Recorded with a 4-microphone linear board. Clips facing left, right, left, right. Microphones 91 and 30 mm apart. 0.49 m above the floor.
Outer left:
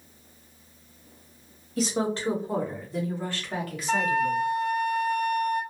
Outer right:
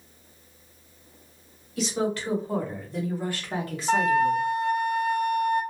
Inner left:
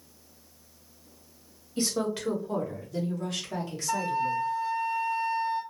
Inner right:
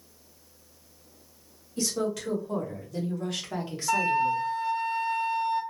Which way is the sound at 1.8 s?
35° left (ahead or behind).